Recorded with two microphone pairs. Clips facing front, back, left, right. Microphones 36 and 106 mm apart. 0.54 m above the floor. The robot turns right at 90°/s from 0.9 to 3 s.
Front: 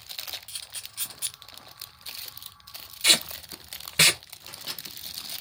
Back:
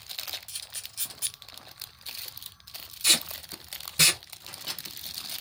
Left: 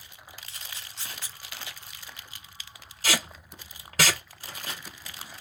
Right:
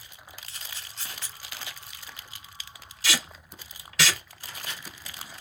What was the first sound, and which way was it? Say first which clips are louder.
A camera shutter: front 1 dB, right 1 dB; 10° right.